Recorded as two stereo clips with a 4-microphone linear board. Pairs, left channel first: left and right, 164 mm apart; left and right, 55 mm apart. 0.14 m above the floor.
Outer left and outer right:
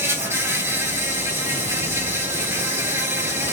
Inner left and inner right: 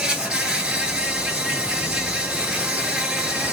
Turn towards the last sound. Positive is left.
turn(degrees=-15)  # may be behind; listen again after turning